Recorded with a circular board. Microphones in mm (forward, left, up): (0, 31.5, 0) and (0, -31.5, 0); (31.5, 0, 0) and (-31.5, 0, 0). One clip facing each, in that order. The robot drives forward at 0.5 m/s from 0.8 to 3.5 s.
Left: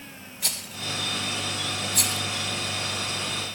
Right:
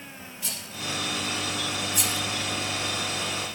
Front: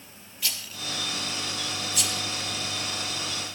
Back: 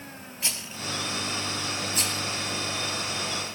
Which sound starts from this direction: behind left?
A rattle, at 0.4 s.